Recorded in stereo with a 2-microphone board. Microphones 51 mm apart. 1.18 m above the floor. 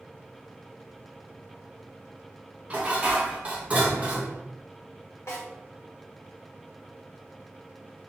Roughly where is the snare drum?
Left.